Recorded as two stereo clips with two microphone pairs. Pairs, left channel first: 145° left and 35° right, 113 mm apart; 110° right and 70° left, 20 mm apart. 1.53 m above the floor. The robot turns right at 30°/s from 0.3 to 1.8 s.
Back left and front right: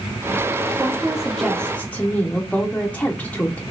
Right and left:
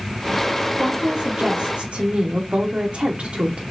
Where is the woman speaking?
35° left, 0.8 m; by 3.6 s 65° left, 0.8 m.